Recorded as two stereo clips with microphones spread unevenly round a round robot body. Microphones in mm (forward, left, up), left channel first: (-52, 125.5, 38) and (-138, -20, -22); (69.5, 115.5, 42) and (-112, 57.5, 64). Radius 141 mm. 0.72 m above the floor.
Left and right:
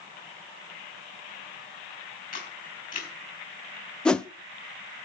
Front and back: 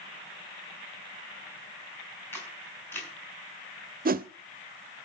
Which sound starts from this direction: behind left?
A whoosh, at 4.0 s.